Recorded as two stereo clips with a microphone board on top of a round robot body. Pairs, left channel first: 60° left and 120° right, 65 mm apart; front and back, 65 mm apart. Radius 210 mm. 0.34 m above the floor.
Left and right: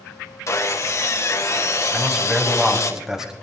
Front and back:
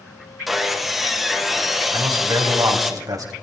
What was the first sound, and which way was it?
Sawing, 95° left.